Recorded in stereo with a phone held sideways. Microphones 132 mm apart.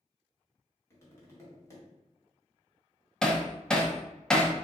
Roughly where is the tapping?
Left.